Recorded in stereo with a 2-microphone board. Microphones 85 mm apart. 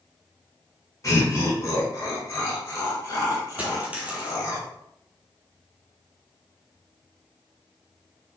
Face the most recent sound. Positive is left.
turn(degrees=-15)  # may be behind; listen again after turning